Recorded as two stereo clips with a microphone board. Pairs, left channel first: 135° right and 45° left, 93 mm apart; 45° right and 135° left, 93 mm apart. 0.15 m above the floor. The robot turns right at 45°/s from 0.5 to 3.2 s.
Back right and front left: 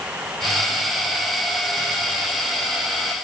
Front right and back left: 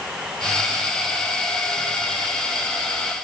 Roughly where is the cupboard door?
I don't hear a cupboard door.